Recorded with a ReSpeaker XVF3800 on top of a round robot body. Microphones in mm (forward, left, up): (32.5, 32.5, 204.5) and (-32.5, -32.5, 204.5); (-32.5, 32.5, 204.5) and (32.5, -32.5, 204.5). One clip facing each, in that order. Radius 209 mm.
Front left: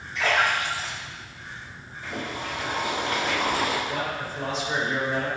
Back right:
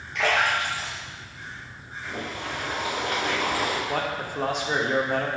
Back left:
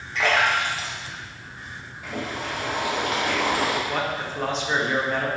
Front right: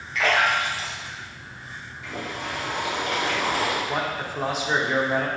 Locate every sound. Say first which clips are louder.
0.1 s a splash: even, even; 160° right, 1.3 m
2.0 s boiling: front left 1 dB, back left 2 dB; 95° left, 1.9 m
3.9 s a man speaking: back right 2 dB, even; 125° right, 1.0 m